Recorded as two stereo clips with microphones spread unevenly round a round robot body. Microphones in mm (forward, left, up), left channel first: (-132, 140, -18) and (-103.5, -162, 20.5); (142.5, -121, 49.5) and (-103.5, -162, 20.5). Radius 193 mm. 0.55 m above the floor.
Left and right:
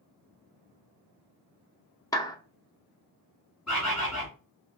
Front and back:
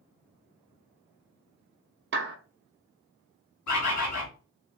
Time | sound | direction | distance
2.1 | a clap | 165° left | 0.8 m
3.7 | a bird | 5° left | 2 m